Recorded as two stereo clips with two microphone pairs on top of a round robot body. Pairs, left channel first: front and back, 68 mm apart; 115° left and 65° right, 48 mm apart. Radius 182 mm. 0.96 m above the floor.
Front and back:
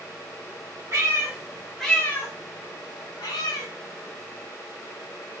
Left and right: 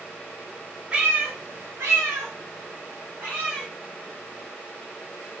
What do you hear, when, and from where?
0.9 s a cat meowing: 130° right, 0.8 m; by 3.7 s 10° right, 1.1 m